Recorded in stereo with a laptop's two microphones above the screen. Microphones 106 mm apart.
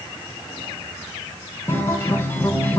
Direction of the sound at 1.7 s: 25° left (ahead or behind).